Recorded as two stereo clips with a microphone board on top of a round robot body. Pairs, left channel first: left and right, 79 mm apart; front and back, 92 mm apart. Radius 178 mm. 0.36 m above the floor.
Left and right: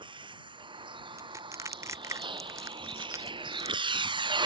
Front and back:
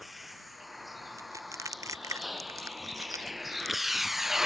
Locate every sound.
0.0 s a vehicle: 90° right; by 4.5 s 95° right
1.2 s crushing: 135° right